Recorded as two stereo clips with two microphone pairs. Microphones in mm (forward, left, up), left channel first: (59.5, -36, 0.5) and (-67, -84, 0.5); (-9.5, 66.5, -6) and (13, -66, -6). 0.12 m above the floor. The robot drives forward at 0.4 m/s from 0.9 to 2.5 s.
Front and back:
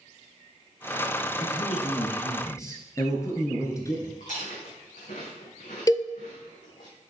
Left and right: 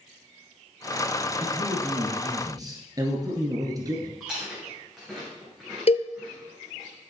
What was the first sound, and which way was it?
A man speaking, 25° right.